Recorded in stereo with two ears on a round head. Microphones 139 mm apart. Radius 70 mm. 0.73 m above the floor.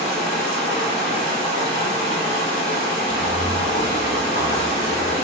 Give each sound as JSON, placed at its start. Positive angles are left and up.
{"t": 0.0, "sound": "running water", "side_deg": 55, "distance_m": 1.2}
{"t": 3.1, "sound": "footsteps", "side_deg": 30, "distance_m": 1.0}